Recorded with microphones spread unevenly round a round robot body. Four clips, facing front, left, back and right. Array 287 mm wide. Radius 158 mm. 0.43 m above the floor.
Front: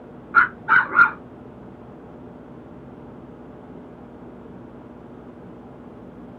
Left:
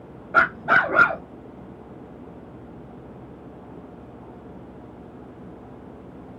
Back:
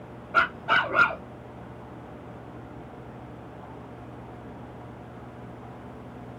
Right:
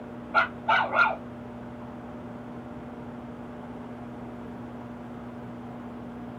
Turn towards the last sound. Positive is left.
turn(degrees=80)